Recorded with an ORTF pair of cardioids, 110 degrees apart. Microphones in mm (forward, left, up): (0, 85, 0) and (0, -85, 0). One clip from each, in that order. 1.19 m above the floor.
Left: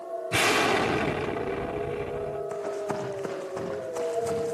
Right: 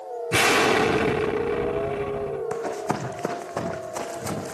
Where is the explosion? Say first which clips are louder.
Right 4 dB; 20° right, 1.7 m.